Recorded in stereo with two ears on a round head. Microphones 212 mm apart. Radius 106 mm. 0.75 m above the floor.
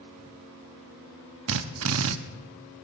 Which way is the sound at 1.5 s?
65° right (ahead or behind).